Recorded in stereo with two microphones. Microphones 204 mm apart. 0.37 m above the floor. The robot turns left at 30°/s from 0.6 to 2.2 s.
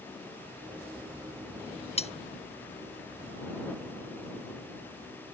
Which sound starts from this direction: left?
Cutlery clinking, at 2.0 s.